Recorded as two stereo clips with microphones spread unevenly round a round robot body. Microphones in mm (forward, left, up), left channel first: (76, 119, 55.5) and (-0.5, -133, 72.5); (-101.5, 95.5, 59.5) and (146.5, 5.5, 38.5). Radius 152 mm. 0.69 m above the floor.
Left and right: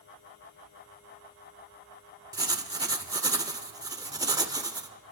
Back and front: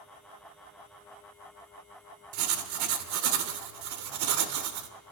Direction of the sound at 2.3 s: 30° right.